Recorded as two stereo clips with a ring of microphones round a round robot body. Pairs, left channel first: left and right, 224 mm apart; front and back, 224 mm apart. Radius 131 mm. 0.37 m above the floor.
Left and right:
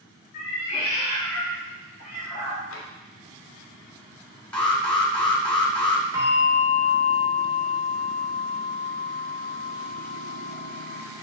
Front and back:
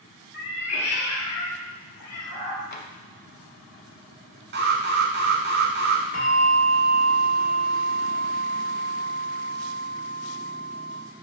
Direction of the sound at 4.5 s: 175° left.